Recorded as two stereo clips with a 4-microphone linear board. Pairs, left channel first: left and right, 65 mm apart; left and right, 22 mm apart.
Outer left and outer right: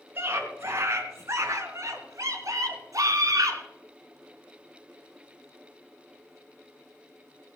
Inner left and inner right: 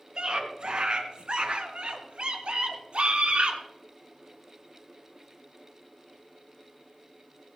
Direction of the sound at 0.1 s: 40° right (ahead or behind).